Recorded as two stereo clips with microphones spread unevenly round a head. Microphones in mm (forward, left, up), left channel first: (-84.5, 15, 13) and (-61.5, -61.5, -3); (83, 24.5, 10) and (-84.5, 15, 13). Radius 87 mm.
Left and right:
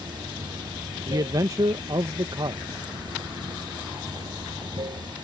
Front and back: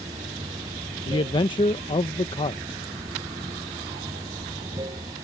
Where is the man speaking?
55° right.